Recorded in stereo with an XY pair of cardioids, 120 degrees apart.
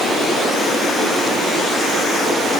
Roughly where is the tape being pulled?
I don't hear tape being pulled.